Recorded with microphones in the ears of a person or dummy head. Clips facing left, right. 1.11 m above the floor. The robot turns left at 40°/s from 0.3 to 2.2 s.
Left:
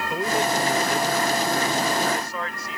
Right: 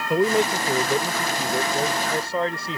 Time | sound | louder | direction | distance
0.1 | a man speaking | right 5 dB | 75° right | ?